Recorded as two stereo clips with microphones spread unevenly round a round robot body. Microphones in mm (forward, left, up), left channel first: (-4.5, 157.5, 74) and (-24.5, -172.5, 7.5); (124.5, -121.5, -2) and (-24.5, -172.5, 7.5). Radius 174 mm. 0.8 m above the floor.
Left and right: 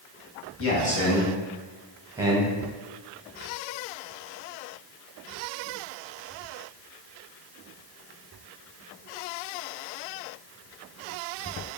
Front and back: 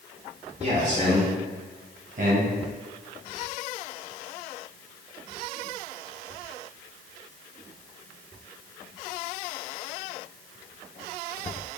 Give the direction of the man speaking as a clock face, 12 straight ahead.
7 o'clock.